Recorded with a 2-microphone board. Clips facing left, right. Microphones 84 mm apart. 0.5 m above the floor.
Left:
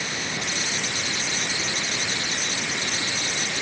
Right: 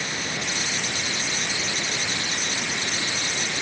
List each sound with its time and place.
Only background noise.